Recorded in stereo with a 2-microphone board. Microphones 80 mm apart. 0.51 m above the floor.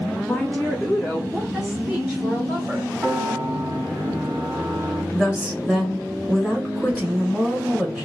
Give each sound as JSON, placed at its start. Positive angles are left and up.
{"t": 0.2, "sound": "a woman speaking", "side_deg": 15, "distance_m": 0.9}
{"t": 3.0, "sound": "a piano", "side_deg": -30, "distance_m": 1.6}
{"t": 5.1, "sound": "a woman speaking", "side_deg": -20, "distance_m": 1.3}